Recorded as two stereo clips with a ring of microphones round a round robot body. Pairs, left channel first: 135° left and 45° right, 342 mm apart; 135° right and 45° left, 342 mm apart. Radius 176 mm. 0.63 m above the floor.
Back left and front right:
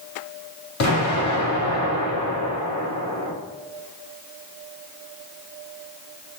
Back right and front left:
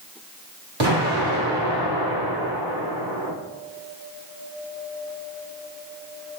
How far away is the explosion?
About 1.9 m.